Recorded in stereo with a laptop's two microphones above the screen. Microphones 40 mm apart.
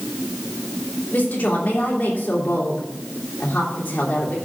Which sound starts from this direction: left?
A woman speaking, at 1.1 s.